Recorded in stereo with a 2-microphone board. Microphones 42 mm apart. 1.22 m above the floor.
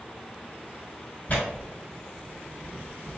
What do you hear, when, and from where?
1.3 s tearing paper: 35° left (ahead or behind), 1.2 m